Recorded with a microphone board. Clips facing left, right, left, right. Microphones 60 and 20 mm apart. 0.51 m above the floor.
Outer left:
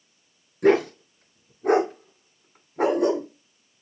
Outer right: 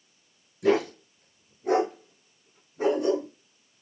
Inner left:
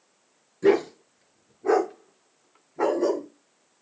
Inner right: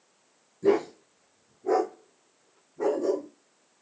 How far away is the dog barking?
About 3 m.